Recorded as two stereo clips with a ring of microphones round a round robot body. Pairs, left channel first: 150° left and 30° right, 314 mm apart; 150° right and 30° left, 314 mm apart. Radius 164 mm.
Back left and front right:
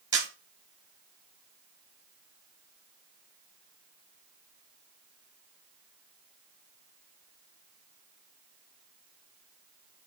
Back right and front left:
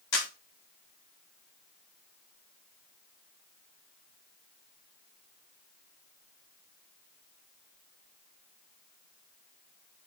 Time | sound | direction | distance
0.1 | a camera shutter | 110° right | 4.5 m